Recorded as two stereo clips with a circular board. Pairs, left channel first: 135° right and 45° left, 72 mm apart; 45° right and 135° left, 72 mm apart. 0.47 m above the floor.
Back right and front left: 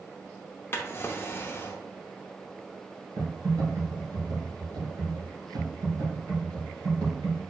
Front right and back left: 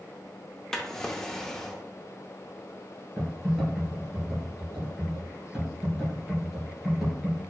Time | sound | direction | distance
0.7 | a drawer | 120° right | 0.6 m
3.2 | typing on a keyboard | 50° left | 2 m